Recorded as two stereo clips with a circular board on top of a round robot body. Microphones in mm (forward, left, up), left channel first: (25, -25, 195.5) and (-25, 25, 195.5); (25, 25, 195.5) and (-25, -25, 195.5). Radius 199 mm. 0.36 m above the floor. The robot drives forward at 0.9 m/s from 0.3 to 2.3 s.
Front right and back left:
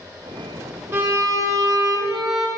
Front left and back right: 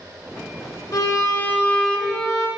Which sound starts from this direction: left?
A violin, at 0.9 s.